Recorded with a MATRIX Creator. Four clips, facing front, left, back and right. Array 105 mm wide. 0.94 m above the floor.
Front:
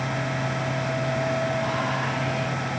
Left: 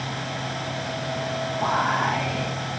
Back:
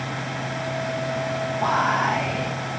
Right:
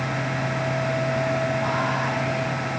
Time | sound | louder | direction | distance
1.6 | whispering | left 2 dB, back 5 dB | 150° left | 0.6 m